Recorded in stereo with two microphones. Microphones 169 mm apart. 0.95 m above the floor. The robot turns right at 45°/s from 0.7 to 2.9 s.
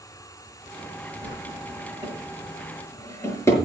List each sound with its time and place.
1.2 s a drawer: 60° right (ahead or behind), 5.5 m; by 3.6 s 15° left (ahead or behind), 5.5 m